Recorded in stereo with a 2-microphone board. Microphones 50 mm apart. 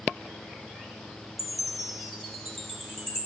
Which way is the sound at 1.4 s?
Centre (ahead or behind).